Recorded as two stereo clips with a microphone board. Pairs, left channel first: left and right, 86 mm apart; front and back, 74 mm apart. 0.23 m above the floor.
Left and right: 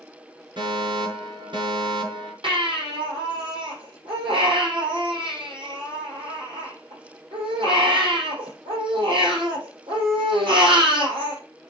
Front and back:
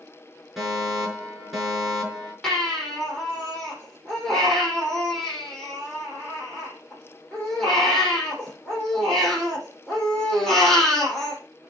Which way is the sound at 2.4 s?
80° right.